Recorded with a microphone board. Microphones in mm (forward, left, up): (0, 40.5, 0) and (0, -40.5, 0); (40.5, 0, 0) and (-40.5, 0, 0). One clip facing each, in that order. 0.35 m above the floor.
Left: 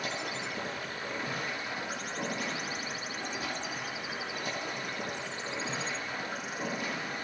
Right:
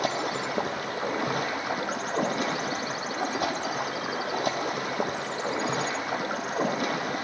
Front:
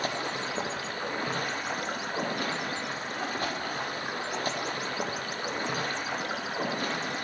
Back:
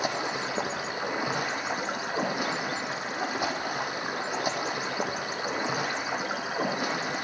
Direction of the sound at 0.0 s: 100° right.